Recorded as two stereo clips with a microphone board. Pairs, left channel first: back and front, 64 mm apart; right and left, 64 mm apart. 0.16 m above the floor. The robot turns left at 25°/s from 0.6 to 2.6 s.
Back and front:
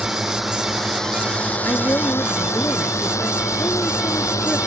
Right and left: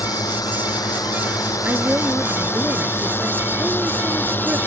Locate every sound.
0.0 s a drone: 90° right; by 4.7 s 150° right
1.6 s a woman speaking: 145° left; by 4.6 s 125° left